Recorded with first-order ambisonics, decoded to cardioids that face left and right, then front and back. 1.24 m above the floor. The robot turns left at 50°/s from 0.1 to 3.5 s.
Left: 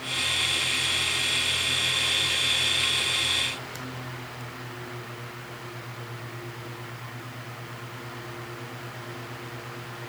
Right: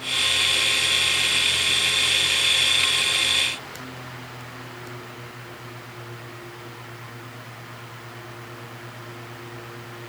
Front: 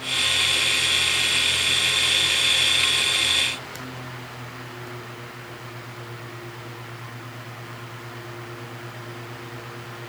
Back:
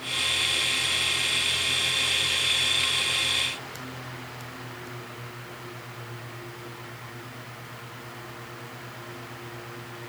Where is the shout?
No shout in this recording.